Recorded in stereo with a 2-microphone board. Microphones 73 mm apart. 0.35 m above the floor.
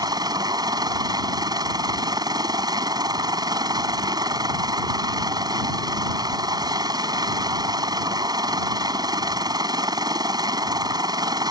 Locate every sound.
0.0 s a helicopter: 65° right (ahead or behind)